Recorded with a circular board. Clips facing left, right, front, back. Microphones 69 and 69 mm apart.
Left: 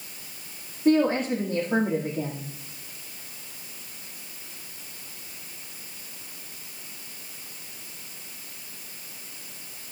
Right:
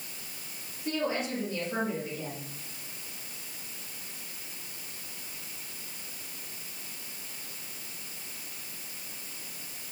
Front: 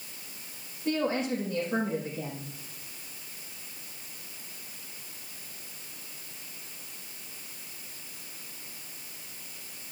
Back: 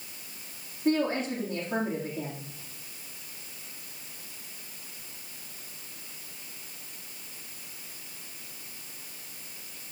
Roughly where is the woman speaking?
Behind left.